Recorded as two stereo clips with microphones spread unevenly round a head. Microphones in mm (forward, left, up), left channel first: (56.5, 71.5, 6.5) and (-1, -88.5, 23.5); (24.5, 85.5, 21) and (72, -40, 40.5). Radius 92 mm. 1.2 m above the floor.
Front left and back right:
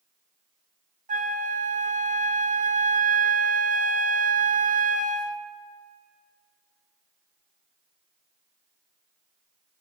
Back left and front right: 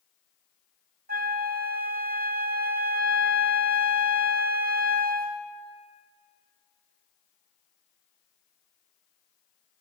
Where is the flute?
65° right, 0.8 m.